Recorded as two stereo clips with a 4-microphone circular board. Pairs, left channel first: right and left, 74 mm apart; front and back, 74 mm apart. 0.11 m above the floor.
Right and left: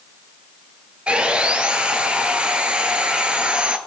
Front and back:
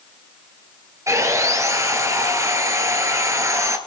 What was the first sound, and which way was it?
Sawing, 160° left.